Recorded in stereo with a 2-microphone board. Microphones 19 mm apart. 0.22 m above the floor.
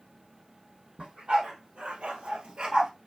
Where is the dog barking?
65° right (ahead or behind), 2 m; by 2.9 s 35° right (ahead or behind), 1.1 m.